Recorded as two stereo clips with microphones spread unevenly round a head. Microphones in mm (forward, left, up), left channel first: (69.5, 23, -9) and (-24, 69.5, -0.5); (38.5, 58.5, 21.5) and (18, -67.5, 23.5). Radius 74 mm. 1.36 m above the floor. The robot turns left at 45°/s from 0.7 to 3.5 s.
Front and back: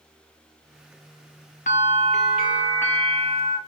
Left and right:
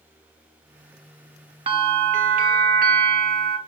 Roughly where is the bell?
Ahead right.